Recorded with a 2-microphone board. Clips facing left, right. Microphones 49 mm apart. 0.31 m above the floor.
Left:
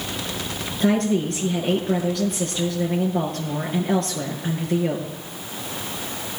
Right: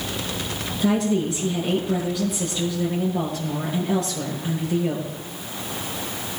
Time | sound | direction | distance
0.8 | a woman speaking | 60° left (ahead or behind) | 6 m